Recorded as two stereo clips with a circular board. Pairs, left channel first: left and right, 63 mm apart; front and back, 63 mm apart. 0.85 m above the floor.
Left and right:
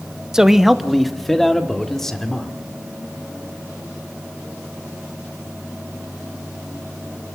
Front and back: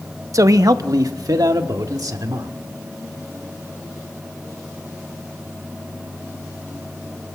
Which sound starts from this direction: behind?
A man speaking, at 0.3 s.